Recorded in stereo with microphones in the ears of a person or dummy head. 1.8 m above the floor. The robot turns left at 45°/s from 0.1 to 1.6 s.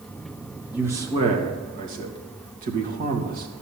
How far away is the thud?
I don't hear a thud.